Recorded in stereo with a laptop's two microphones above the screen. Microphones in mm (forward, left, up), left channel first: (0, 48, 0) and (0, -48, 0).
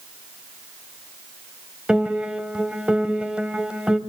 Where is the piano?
10° right (ahead or behind), 1.1 m.